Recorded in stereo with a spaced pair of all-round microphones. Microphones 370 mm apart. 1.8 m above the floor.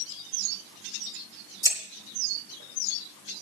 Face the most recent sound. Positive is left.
turn(degrees=10)  # may be behind; listen again after turning